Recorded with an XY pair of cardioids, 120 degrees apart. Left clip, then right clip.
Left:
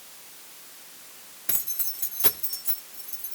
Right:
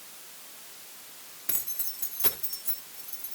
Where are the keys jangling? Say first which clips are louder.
Left 3 dB; 15° left, 2 m.